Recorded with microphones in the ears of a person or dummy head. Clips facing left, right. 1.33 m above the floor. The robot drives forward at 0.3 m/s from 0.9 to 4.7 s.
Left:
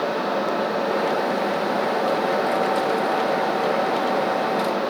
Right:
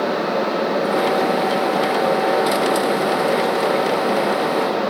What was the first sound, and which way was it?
Only background noise.